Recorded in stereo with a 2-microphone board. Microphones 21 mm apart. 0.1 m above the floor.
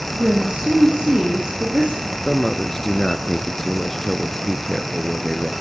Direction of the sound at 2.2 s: 15° left (ahead or behind).